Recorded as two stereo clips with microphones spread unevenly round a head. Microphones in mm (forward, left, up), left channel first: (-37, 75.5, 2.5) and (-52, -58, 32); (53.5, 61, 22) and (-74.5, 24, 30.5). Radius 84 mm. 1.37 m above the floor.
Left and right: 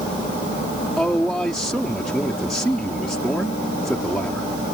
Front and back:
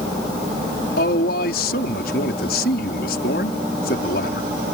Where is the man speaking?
5° right.